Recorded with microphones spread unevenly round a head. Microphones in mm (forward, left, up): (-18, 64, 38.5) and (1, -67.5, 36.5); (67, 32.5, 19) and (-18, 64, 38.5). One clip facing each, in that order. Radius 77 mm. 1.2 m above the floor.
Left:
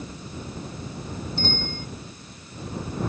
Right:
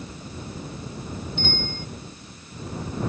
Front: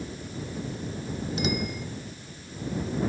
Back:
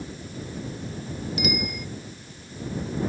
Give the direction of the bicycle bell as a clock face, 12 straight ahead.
11 o'clock.